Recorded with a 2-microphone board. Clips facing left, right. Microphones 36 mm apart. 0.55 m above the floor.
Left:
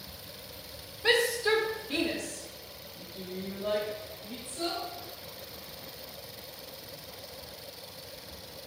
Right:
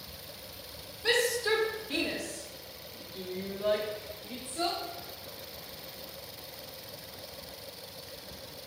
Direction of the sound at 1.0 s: 20° left (ahead or behind).